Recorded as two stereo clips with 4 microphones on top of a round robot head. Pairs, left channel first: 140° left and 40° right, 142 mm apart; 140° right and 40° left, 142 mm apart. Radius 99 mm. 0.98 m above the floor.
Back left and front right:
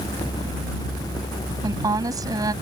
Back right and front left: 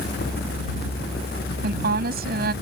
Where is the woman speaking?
25° left.